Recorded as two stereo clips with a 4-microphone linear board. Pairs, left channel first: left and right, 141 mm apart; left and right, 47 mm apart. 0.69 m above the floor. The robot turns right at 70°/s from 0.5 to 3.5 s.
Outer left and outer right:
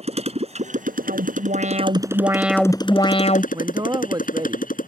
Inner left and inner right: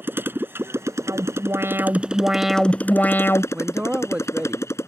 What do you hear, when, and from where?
0.0 s a motorcycle: 130° right; by 4.9 s 80° left
1.1 s an alarm: 105° right; by 3.4 s 60° left
3.5 s a man speaking: 25° right (ahead or behind)